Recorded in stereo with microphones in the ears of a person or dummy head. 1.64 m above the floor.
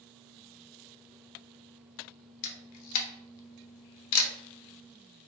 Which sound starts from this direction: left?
A camera shutter, at 2.4 s.